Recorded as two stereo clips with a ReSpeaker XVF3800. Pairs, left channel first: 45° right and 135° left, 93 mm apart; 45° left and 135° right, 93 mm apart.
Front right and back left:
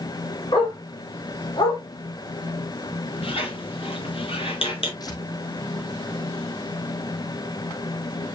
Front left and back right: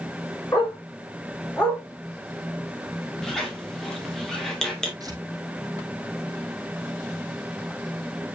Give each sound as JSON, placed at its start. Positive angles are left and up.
{"t": 0.5, "sound": "a dog barking", "azimuth_deg": -20, "distance_m": 5.0}
{"t": 3.2, "sound": "a squeak", "azimuth_deg": -40, "distance_m": 3.5}
{"t": 5.0, "sound": "tearing paper", "azimuth_deg": -90, "distance_m": 3.5}